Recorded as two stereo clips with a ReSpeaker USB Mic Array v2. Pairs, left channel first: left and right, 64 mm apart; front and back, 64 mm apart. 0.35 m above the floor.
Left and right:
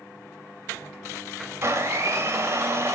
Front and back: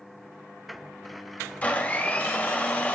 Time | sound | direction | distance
1.6 | a blender | 60° right | 1.5 m